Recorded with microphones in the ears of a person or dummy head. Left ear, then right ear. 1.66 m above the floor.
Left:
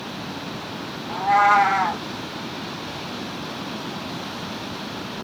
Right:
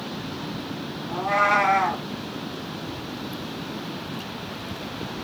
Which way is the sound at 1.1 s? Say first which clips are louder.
Left 4 dB; 20° left (ahead or behind).